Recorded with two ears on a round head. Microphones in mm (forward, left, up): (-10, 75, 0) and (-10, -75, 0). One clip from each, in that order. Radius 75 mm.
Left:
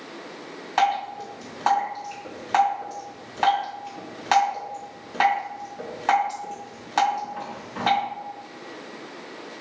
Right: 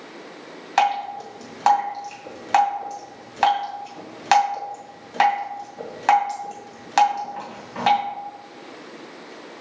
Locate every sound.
0.8 s dripping: 35° right (ahead or behind), 2.5 m